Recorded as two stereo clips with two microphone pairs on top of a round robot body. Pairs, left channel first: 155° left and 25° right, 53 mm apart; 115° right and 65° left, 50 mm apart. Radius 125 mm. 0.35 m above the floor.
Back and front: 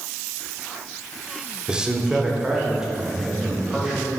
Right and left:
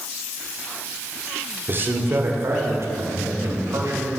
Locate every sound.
1.7 s a man speaking: 50° left, 1.2 m; by 4.1 s 60° left, 2 m